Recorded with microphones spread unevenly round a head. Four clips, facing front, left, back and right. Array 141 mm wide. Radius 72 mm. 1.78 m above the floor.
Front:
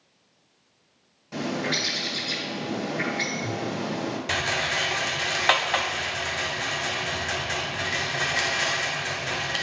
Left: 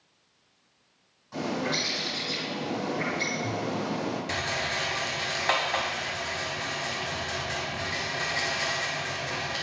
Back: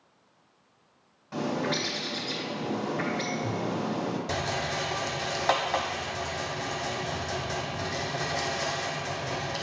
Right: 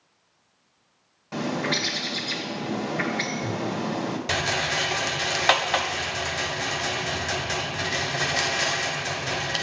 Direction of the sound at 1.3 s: 85° right.